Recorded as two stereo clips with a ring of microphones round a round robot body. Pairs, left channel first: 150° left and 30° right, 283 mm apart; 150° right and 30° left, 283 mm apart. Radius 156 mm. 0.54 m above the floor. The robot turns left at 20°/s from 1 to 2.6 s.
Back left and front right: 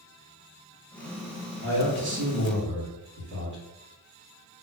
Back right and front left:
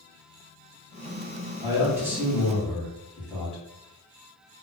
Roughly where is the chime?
I don't hear a chime.